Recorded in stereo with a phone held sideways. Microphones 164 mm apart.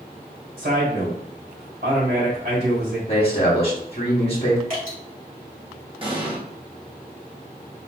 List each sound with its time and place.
0.6 s a man speaking: 85° right, 1.9 m
3.1 s a man speaking: 35° left (ahead or behind), 0.8 m
4.7 s dripping: 60° right (ahead or behind), 1.8 m
6.0 s an explosion: 35° right (ahead or behind), 0.8 m